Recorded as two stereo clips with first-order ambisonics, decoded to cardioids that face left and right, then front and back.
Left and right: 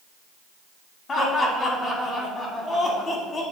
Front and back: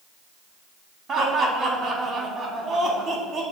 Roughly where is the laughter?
Behind left.